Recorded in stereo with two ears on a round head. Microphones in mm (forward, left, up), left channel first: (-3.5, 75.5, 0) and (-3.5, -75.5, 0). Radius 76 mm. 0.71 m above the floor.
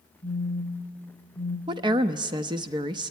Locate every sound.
0.2 s a phone buzzing: 25° left (ahead or behind), 1.8 m
1.7 s a woman speaking: 25° right (ahead or behind), 0.6 m